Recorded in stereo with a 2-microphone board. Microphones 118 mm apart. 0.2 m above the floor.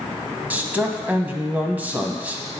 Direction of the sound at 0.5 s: 15° right (ahead or behind).